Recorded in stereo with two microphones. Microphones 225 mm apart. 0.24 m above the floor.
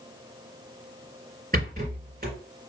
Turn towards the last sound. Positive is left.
turn(degrees=-40)  # may be behind; listen again after turning